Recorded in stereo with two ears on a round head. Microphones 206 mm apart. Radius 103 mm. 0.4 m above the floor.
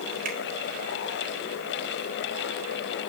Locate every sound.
0.2 s a finger snap: 40° right (ahead or behind), 3 m